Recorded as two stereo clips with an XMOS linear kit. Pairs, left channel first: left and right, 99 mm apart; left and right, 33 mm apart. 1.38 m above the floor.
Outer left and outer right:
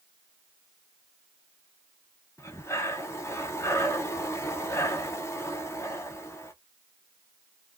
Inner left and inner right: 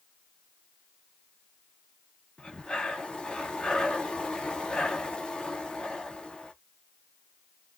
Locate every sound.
2.4 s breathing: 30° left (ahead or behind), 0.6 m